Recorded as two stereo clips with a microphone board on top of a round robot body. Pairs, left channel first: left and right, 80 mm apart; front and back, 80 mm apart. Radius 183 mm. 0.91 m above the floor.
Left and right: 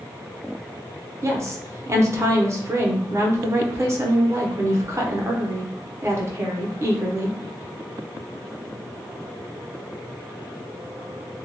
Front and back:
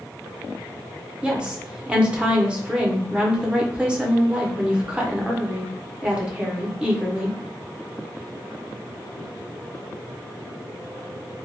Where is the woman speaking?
110° right, 0.8 m.